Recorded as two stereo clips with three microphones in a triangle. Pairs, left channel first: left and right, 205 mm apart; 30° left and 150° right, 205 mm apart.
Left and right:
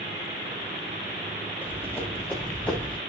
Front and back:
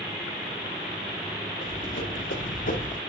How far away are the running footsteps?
About 5.5 m.